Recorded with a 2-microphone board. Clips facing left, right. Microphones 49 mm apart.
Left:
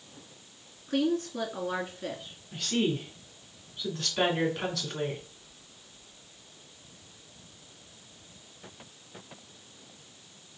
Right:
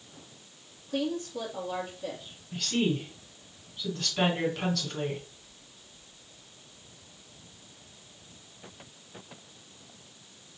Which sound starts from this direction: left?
A woman speaking, at 0.9 s.